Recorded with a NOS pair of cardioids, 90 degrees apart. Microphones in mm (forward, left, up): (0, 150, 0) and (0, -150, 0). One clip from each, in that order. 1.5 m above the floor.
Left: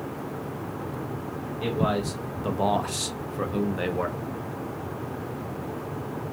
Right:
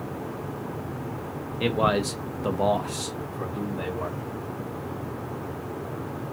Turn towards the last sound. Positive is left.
turn(degrees=60)